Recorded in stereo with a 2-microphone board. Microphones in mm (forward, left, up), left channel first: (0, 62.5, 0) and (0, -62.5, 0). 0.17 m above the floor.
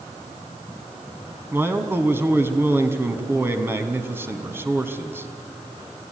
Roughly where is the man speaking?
Centre.